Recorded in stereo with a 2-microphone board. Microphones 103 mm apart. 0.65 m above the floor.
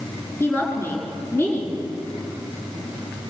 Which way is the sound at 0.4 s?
25° left (ahead or behind).